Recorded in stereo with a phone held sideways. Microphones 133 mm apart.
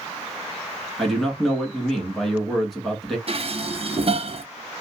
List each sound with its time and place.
1.0 s a man speaking: centre (ahead or behind), 1.3 m
3.3 s dishes clattering: 50° right (ahead or behind), 0.6 m